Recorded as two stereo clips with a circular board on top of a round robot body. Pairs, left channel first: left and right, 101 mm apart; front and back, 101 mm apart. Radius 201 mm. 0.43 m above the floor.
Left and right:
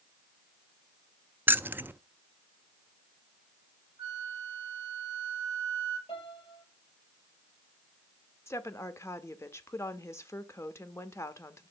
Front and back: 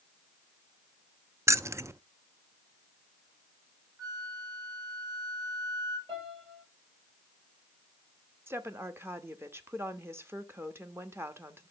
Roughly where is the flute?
Behind right.